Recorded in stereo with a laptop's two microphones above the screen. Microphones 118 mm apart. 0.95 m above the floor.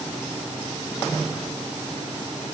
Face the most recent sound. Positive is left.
No sound to turn to.